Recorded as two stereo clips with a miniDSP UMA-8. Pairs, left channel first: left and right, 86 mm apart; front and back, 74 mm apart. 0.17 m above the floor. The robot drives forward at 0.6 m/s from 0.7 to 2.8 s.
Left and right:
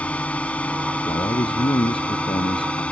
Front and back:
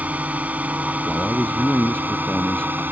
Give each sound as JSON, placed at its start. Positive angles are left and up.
{"t": 0.0, "sound": "a drone", "azimuth_deg": 145}
{"t": 1.1, "sound": "a man speaking", "azimuth_deg": 75}